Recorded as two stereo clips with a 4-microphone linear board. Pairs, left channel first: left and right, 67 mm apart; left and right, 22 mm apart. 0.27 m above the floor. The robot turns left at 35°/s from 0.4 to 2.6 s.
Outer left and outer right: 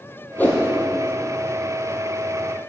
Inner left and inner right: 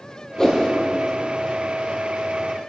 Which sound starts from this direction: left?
A whoosh, at 0.4 s.